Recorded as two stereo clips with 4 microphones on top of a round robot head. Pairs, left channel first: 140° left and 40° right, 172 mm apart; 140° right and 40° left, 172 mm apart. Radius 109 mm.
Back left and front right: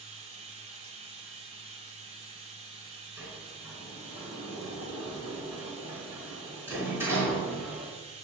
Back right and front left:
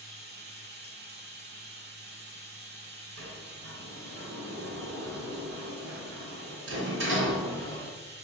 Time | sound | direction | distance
0.0 | running water | 10° left | 2.5 m
3.2 | a sliding door | 35° left | 3.5 m